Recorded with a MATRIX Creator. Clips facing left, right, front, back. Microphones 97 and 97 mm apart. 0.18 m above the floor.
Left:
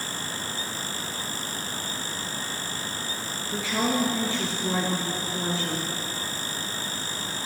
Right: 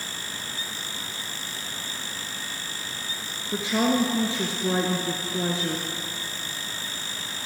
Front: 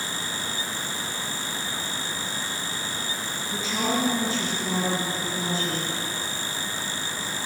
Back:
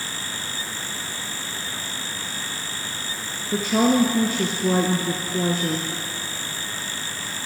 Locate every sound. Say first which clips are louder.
3.5 s a woman speaking: right 3 dB, back 8 dB; 155° right, 2.5 m